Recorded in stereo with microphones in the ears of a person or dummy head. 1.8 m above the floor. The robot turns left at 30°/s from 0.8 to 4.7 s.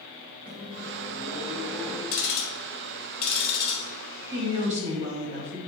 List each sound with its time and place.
0.5 s a microwave: 150° right, 0.6 m; by 2.0 s 175° left, 0.6 m
2.1 s ticking: 65° left (ahead or behind), 1.2 m; by 3.9 s 20° left (ahead or behind), 1.2 m
4.3 s a woman speaking: 25° right (ahead or behind), 0.6 m; by 5.6 s 40° right (ahead or behind), 0.6 m